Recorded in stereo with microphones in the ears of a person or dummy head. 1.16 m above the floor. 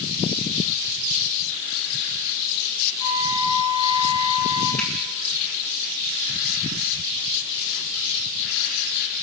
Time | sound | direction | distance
3.0 | a flute | 35° left (ahead or behind) | 8 m
4.8 | a finger snap | 5° left (ahead or behind) | 9.5 m